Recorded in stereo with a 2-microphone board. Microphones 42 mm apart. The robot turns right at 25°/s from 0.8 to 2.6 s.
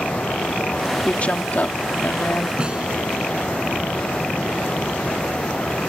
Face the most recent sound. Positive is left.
turn(degrees=-25)  # may be behind; listen again after turning